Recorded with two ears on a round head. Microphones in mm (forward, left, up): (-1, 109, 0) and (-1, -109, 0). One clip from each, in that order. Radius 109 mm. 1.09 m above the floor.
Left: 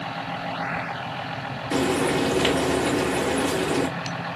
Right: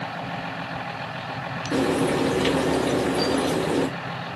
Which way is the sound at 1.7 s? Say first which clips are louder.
Even; 30° left (ahead or behind).